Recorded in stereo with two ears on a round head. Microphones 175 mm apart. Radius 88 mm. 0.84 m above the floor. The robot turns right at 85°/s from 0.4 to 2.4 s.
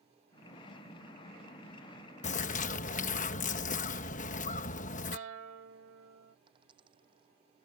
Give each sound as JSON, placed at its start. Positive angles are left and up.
{"t": 2.2, "sound": "a bird", "side_deg": 35}
{"t": 5.1, "sound": "a guitar", "side_deg": -70}
{"t": 6.5, "sound": "a dropped coin", "side_deg": -25}